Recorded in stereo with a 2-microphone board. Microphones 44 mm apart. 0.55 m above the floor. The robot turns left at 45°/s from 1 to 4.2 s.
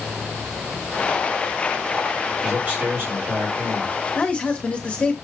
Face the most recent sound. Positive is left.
turn(degrees=25)  # may be behind; listen again after turning